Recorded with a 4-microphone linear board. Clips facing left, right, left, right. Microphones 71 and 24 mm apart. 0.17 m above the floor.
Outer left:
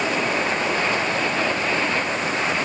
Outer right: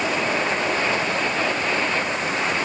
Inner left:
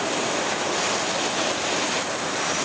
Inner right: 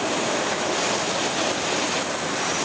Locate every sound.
Only background noise.